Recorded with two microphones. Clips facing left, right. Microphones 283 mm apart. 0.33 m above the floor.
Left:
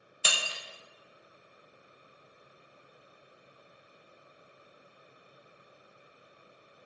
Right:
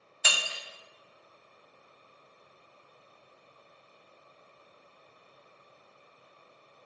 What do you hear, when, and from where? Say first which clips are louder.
0.2 s breaking glass: even; 40° left (ahead or behind), 0.7 m